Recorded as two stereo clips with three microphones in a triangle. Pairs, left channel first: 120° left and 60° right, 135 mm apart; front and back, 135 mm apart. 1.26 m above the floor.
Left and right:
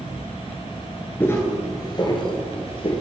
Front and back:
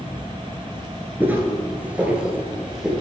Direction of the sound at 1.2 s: 145° left.